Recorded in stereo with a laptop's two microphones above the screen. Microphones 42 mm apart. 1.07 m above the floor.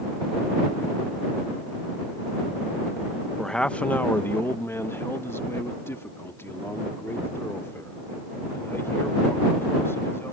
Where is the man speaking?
10° left (ahead or behind); by 10.3 s 75° left (ahead or behind).